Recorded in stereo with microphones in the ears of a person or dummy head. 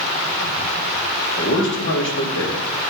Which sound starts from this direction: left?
A man speaking, at 1.4 s.